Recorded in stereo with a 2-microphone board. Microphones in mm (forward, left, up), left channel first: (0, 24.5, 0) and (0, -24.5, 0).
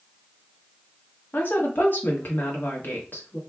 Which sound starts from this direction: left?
A woman speaking, at 1.3 s.